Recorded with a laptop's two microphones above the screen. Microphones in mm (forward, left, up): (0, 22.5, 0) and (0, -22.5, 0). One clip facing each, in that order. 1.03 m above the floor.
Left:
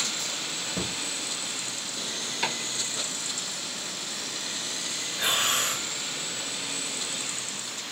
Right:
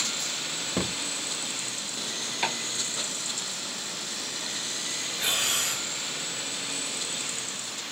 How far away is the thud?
About 0.5 m.